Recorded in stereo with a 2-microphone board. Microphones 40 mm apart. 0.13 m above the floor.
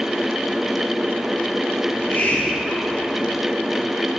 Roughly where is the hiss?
Left.